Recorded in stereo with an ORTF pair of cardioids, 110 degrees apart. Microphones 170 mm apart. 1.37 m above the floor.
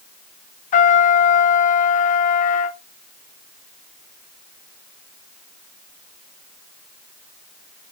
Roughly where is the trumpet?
Ahead left.